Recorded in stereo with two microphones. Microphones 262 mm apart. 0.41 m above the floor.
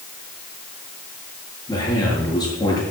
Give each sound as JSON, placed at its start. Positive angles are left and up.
{"t": 1.7, "sound": "a man speaking", "side_deg": 15, "distance_m": 7.5}